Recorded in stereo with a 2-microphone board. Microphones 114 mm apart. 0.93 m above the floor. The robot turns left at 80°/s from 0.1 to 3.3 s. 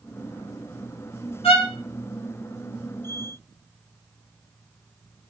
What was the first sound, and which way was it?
A violin, 60° left (ahead or behind).